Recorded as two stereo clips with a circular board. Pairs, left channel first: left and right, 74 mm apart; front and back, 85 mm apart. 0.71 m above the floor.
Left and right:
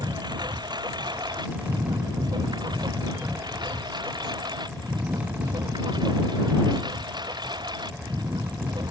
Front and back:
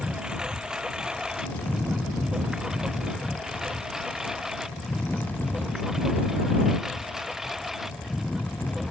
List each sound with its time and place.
0.0 s a lawn mower: 100° right; by 8.9 s 95° right